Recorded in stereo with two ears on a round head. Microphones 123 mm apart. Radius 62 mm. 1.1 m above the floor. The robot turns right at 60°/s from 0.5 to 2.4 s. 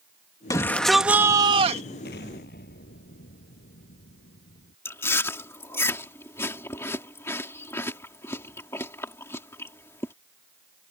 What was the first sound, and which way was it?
A shout, 155° left.